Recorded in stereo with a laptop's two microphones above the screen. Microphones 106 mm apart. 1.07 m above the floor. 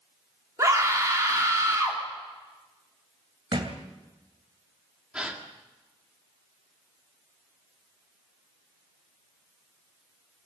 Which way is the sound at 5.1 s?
10° right (ahead or behind).